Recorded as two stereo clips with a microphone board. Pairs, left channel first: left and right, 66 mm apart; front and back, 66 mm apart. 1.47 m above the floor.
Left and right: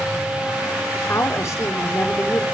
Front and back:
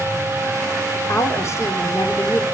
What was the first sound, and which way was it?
A woman speaking, 45° left.